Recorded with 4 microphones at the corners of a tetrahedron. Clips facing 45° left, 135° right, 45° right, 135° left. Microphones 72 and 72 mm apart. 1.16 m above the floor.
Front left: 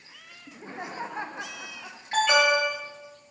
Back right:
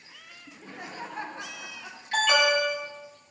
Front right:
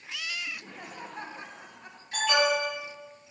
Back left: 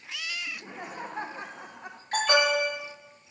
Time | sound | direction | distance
0.5 | laughter | 70° left | 0.6 m
2.1 | an alarm | 105° left | 7.5 m